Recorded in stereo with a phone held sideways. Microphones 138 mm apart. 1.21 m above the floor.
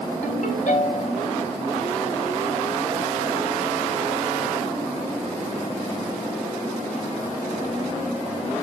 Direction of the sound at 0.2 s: 70° left (ahead or behind).